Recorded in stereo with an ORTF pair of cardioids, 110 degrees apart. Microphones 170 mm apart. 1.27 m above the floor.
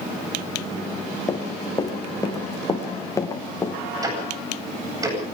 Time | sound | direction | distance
1.3 | running footsteps | 20° left | 4 m
4.0 | ticking | 20° right | 9 m